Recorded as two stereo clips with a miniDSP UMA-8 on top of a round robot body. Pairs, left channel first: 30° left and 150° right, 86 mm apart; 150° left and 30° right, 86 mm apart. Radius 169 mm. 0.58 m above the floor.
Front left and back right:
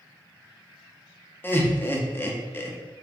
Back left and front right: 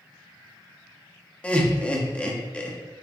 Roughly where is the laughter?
Left.